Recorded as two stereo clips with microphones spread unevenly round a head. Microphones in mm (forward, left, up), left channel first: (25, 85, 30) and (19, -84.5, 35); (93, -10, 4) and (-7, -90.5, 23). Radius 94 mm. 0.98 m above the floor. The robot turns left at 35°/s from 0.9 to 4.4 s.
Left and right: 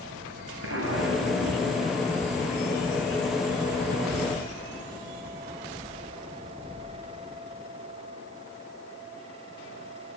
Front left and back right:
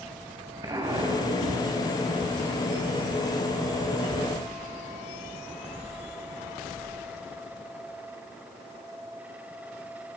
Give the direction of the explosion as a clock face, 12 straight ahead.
3 o'clock.